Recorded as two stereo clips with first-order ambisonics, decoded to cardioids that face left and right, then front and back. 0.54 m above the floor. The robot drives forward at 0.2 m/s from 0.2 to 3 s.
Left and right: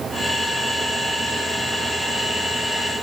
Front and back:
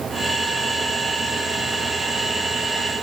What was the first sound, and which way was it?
Only background noise.